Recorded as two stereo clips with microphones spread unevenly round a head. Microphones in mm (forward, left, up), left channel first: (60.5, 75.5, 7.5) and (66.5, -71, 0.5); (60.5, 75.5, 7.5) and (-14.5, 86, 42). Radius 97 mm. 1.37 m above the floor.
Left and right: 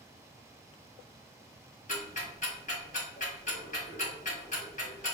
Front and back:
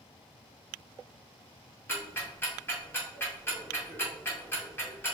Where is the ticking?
60° left, 2 m.